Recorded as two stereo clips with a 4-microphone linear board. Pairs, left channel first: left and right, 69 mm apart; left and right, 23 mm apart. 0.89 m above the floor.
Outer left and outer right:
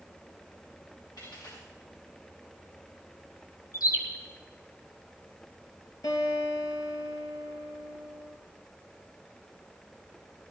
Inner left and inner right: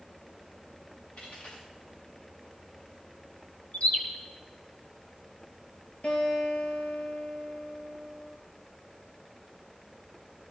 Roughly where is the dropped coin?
Left.